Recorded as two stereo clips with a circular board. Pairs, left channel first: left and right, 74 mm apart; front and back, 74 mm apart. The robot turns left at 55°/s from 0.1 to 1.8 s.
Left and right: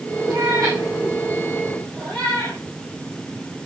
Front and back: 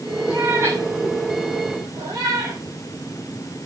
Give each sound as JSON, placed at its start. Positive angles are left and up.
{"t": 0.3, "sound": "a cat meowing", "azimuth_deg": -105, "distance_m": 8.5}